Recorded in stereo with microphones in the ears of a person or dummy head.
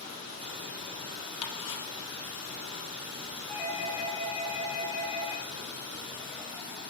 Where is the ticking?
30° left (ahead or behind), 0.7 m.